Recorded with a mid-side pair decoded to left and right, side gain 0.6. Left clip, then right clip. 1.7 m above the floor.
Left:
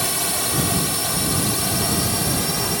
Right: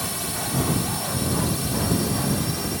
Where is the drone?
40° left.